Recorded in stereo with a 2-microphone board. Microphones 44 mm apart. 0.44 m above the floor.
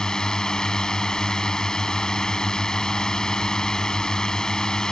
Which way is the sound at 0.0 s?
15° left (ahead or behind).